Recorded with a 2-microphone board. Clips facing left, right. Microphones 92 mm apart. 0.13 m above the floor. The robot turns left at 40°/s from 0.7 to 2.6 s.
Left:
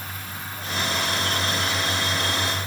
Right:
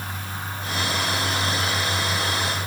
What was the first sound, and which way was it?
Only background noise.